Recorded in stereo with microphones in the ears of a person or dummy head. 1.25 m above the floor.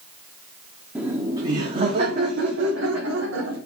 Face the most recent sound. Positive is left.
turn(degrees=-75)  # may be behind; listen again after turning